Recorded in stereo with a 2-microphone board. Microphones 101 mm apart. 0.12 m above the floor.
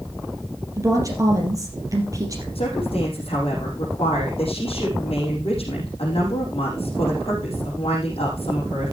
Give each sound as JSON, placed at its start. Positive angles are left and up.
{"t": 0.8, "sound": "a woman speaking", "side_deg": -35, "distance_m": 3.0}
{"t": 2.5, "sound": "a woman speaking", "side_deg": 70, "distance_m": 5.5}